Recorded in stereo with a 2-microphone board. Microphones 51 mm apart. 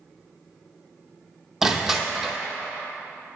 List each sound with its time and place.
1.6 s crushing: 5° right (ahead or behind), 0.7 m